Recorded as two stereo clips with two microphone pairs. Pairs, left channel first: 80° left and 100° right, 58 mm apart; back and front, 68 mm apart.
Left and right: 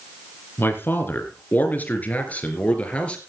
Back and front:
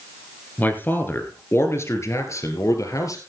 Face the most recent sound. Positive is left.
turn(degrees=150)